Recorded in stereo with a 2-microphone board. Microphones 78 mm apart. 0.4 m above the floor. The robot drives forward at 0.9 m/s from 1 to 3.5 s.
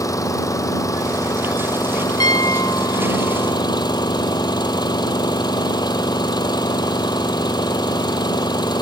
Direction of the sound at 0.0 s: 45° left (ahead or behind).